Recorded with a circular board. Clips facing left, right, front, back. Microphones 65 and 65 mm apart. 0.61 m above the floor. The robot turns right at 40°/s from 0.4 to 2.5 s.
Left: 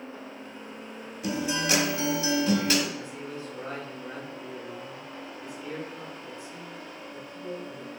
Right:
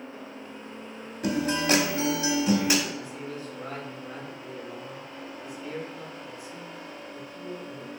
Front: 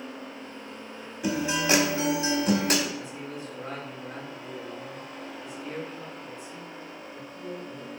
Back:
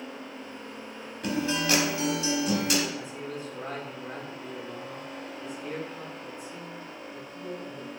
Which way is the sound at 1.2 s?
75° right.